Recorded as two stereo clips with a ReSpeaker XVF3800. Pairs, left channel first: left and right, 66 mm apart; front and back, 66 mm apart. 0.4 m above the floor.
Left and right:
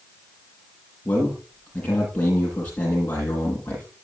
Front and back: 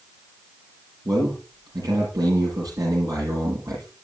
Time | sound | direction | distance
1.1 | a man speaking | 155° left | 10 m